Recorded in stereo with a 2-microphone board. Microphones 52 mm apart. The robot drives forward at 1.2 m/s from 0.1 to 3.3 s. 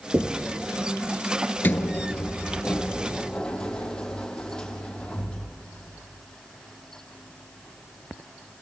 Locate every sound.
0.1 s knocking: 35° right (ahead or behind), 2.5 m; by 0.5 s 40° right (ahead or behind), 1.9 m
1.6 s a sliding door: 40° left (ahead or behind), 1.6 m; by 5.5 s 20° left (ahead or behind), 3.5 m